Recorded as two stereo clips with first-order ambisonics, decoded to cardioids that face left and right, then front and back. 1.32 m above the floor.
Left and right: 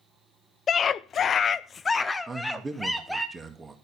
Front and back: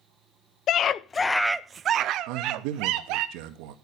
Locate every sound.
0.7 s a scream: 35° left, 0.7 m; by 3.3 s straight behind, 1.2 m
2.3 s a man speaking: 170° right, 2.0 m